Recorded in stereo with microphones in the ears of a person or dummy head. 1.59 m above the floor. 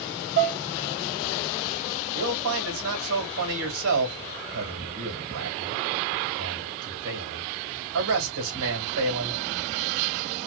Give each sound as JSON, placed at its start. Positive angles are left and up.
{"t": 0.4, "sound": "dishes clattering", "side_deg": -55, "distance_m": 1.4}
{"t": 2.1, "sound": "a man speaking", "side_deg": -70, "distance_m": 2.0}